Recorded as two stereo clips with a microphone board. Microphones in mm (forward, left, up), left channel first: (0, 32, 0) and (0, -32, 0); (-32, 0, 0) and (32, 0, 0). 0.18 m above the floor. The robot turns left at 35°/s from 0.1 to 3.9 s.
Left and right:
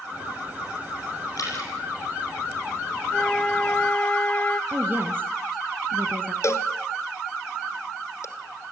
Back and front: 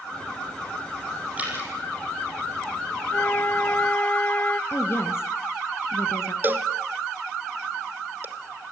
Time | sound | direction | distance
1.4 | dripping | 70° left | 8 m
3.1 | a flute | 165° left | 0.6 m
4.7 | a woman speaking | 140° right | 2.5 m
6.4 | a cowbell | 55° left | 1.5 m